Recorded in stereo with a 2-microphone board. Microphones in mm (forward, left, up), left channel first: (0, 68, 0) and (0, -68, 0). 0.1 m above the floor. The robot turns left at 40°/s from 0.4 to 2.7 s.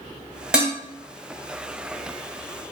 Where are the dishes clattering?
5° right (ahead or behind), 1.4 m; by 0.8 s 15° right (ahead or behind), 1.4 m.